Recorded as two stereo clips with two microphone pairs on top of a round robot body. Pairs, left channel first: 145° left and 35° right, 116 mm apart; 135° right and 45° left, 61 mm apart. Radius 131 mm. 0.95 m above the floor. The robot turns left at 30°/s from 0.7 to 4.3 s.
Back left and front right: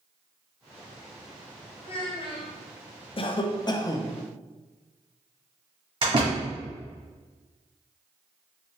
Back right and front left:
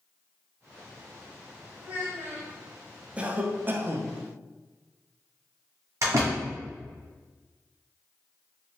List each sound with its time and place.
1.8 s a child speaking: 110° left, 1.0 m; by 2.6 s 90° left, 1.0 m
3.2 s a cough: 115° left, 0.5 m; by 4.2 s 85° left, 0.5 m
6.0 s a door slam: 10° left, 1.4 m